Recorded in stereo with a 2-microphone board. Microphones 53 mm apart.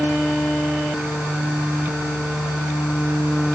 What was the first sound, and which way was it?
Only background noise.